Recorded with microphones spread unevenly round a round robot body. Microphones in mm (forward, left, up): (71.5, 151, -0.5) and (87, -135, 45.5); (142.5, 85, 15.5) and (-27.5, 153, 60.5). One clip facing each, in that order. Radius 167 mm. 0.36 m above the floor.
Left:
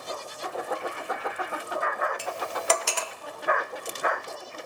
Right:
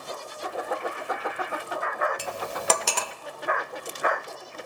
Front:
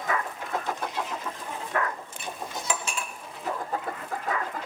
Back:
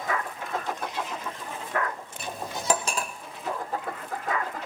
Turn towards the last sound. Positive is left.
turn(degrees=-140)